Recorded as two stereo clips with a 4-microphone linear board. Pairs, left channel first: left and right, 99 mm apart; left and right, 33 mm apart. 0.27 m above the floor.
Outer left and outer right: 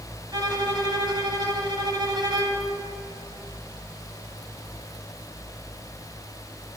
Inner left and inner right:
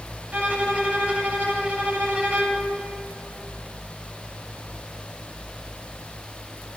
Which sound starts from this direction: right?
A violin, at 0.3 s.